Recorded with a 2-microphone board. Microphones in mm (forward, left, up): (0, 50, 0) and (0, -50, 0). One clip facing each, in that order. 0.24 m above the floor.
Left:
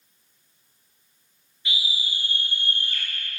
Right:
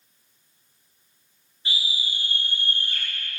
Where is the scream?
35° right (ahead or behind), 3 m; by 3.0 s 50° right (ahead or behind), 3 m.